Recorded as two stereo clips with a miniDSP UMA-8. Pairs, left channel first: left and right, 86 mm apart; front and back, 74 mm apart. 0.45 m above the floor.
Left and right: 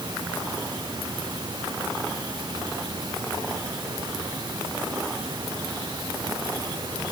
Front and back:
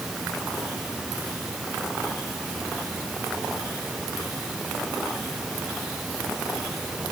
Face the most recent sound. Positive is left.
No sound to turn to.